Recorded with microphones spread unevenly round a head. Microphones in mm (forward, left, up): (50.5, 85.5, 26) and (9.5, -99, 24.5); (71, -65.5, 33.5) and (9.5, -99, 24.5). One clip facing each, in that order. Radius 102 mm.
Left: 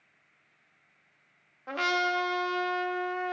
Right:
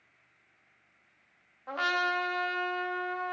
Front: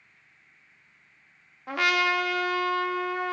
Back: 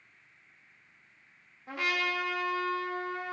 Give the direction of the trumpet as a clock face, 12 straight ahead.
11 o'clock.